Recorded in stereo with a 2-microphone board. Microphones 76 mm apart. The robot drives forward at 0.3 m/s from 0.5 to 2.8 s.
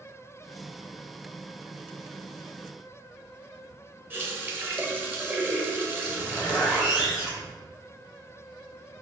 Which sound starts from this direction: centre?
A zipper, at 6.0 s.